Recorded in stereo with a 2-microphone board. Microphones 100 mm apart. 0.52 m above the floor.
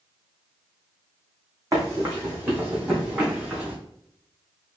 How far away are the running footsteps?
About 1.4 m.